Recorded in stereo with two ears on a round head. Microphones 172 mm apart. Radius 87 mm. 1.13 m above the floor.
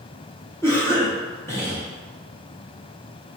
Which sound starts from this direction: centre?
A cough, at 0.6 s.